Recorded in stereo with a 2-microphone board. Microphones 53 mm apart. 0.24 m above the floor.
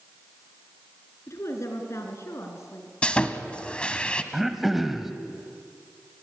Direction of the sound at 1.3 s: 60° left (ahead or behind).